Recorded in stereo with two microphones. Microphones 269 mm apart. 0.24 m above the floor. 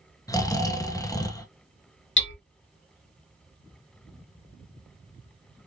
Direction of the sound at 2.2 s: 45° left (ahead or behind).